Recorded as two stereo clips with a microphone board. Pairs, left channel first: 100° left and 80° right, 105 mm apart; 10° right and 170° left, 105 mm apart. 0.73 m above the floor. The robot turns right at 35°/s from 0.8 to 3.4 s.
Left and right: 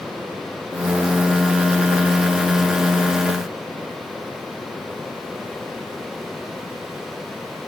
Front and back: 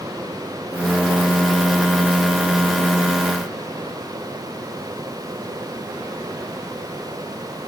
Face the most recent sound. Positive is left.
No sound to turn to.